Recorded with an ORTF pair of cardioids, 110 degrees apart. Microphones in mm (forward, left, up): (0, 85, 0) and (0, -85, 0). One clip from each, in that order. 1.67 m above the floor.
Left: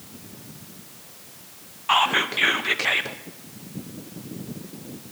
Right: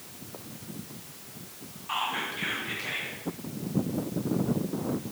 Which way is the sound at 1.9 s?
65° left.